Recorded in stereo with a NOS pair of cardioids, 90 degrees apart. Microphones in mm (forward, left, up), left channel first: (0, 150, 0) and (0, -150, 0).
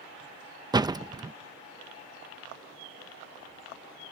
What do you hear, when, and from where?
0.7 s a door slam: 15° right